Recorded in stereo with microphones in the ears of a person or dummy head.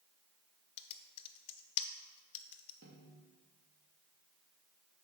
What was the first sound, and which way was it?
Typing on a keyboard, 35° left (ahead or behind).